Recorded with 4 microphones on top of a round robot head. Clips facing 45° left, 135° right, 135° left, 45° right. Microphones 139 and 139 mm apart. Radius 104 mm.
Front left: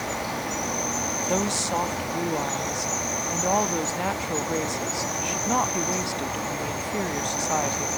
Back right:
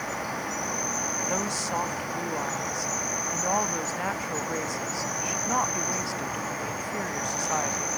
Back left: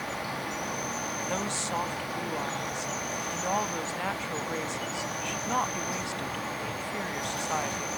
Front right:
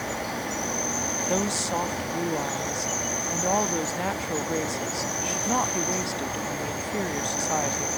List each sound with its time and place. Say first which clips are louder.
0.0 s an insect: front left 3 dB, front right 4 dB; 10° right
1.3 s a woman speaking: front left 5 dB, front right 7 dB; 10° right